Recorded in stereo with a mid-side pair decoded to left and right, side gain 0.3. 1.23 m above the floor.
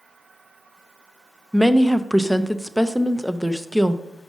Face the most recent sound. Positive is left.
turn(degrees=-5)